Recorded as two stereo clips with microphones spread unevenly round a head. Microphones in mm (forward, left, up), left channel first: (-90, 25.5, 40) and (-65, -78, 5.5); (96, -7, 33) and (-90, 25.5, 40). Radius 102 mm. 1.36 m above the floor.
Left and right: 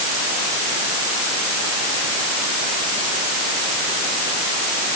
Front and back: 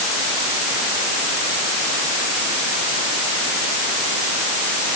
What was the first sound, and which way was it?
Only background noise.